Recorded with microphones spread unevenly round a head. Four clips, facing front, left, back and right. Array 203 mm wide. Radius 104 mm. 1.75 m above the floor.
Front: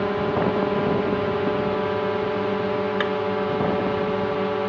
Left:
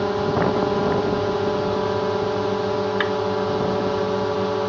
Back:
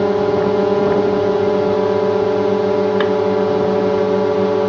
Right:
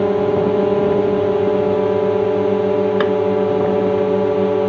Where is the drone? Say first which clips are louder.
Right 5 dB, back 7 dB; 140° right.